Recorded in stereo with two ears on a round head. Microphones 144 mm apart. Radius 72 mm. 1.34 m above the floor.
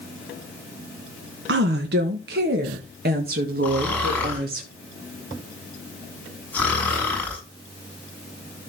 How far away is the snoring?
About 7 m.